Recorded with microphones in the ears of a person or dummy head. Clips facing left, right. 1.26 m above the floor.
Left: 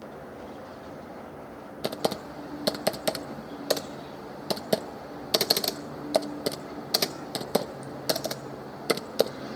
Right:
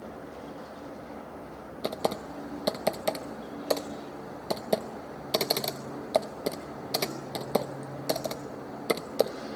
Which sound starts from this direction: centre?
Typing on a keyboard, at 1.8 s.